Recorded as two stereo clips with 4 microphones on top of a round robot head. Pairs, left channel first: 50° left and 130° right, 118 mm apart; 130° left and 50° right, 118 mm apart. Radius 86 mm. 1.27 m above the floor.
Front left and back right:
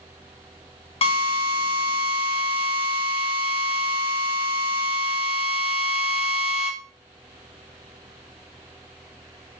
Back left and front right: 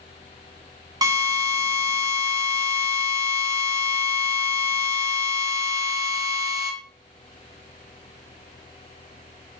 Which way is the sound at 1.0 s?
10° left.